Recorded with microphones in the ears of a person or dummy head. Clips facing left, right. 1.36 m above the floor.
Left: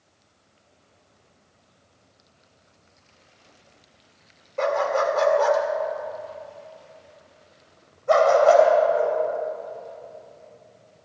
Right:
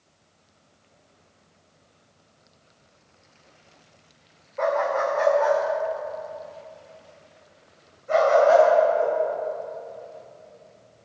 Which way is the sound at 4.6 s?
40° left (ahead or behind).